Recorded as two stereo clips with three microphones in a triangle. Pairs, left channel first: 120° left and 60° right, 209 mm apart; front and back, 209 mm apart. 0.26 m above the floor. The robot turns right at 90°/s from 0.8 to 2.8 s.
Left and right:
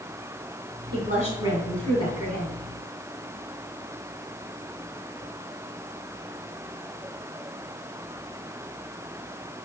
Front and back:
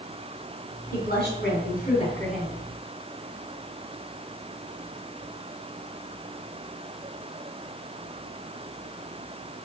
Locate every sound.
0.9 s a woman speaking: 40° right, 2.5 m; by 2.6 s 110° left, 2.5 m